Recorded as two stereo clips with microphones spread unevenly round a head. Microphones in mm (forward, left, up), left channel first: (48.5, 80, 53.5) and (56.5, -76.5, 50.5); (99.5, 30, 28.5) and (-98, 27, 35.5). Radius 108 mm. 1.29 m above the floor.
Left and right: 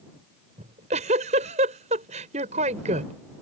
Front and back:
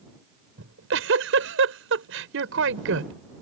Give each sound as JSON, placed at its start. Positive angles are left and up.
{"t": 0.6, "sound": "a giggle", "azimuth_deg": -145}